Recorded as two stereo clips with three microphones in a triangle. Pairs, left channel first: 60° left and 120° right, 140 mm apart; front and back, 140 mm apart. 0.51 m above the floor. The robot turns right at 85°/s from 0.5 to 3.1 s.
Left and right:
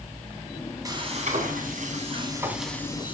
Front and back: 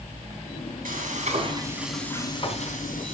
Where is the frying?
Straight behind, 3.5 m; by 3.1 s 10° left, 3.5 m.